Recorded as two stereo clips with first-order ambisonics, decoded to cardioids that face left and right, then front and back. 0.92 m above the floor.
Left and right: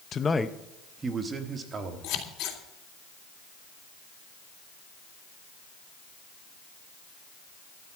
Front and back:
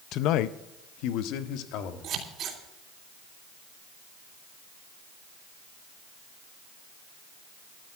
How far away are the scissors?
About 3 m.